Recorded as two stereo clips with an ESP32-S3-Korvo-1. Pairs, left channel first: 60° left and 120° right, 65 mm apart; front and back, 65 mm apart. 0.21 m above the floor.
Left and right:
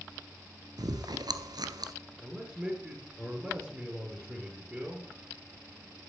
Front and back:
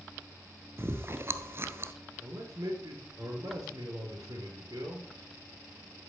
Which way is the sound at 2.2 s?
165° left.